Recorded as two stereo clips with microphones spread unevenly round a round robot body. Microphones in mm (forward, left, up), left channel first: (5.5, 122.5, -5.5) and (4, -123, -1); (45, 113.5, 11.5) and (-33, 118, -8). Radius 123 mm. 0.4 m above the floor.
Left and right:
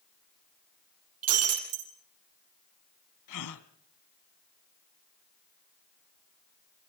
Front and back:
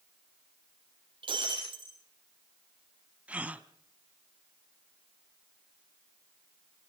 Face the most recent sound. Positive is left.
turn(degrees=105)